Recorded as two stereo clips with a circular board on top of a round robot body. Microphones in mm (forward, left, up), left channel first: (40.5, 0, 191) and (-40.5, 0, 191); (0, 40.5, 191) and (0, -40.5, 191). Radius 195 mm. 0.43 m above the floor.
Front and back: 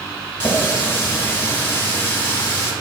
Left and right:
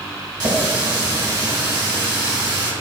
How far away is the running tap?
About 1.7 m.